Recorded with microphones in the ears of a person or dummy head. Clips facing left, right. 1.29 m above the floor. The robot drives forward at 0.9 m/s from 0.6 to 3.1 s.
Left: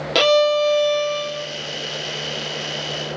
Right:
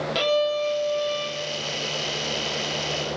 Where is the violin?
65° left (ahead or behind), 0.6 m; by 1.5 s 40° left (ahead or behind), 0.8 m.